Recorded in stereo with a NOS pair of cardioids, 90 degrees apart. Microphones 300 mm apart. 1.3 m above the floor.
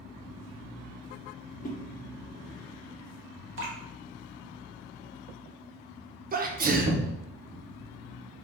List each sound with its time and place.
1.6 s a whoosh: 30° left, 1.1 m
3.6 s dripping: 45° right, 1.6 m
6.3 s a sneeze: 30° right, 0.8 m